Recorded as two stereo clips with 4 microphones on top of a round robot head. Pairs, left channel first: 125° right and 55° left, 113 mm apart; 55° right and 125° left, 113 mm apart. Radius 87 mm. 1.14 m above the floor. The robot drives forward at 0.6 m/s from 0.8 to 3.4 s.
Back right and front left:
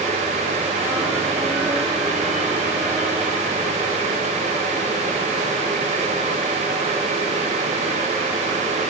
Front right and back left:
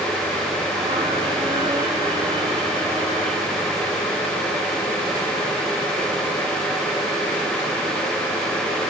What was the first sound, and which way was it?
Only background noise.